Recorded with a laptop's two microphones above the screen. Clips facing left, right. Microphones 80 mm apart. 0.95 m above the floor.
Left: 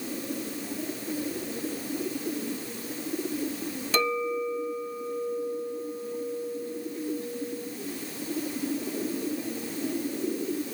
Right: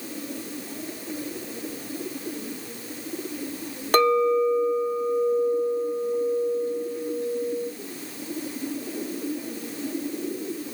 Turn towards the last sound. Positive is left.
turn(degrees=-55)  # may be behind; listen again after turning